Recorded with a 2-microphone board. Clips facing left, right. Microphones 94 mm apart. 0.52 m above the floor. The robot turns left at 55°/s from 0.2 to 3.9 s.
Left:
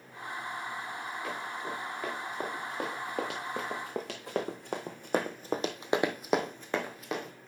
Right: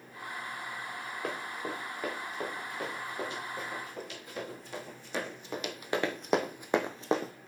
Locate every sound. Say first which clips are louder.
1.2 s running footsteps: right 3 dB; 50° right (ahead or behind), 3.5 m; by 7.3 s 35° right (ahead or behind), 1.2 m